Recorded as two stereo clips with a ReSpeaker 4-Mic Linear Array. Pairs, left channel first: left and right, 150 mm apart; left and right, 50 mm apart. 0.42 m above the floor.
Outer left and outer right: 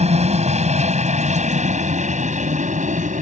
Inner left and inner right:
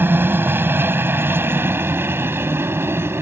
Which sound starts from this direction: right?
A helicopter, at 0.0 s.